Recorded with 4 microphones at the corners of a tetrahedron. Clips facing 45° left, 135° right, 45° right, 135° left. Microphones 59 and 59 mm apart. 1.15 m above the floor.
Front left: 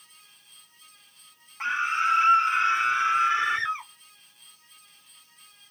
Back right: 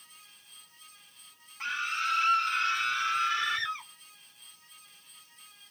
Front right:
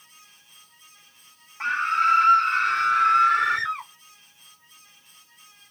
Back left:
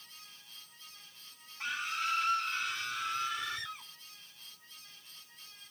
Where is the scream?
15° right; by 3.9 s 20° right.